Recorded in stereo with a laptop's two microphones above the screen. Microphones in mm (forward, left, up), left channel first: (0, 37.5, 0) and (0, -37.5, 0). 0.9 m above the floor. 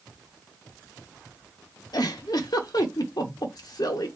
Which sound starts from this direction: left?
A giggle, at 1.9 s.